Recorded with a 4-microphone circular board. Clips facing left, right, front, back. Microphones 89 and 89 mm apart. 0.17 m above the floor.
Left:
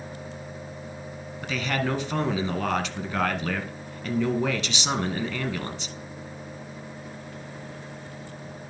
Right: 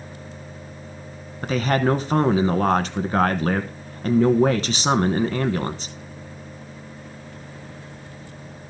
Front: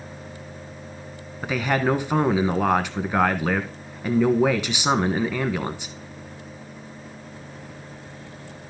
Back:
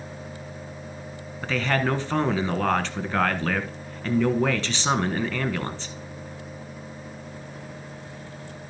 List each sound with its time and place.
1.4 s a man speaking: 70° right, 1.3 m